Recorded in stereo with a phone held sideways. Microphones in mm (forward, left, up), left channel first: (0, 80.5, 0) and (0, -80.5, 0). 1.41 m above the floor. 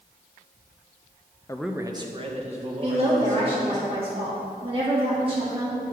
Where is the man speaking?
20° left (ahead or behind), 0.6 m; by 3.8 s 50° right (ahead or behind), 4 m.